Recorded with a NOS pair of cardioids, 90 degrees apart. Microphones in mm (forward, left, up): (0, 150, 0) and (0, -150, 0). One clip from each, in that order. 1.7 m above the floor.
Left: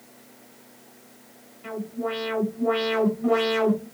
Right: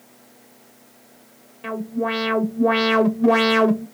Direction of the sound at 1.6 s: 65° right.